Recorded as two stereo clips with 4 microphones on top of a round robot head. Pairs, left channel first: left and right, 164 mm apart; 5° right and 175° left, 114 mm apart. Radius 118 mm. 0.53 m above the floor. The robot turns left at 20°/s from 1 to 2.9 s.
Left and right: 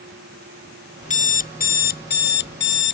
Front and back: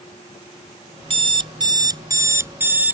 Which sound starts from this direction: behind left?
An alarm clock, at 1.0 s.